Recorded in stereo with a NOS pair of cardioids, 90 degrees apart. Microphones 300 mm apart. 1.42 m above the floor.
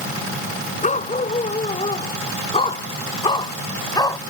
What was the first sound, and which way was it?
A dog barking, 25° left.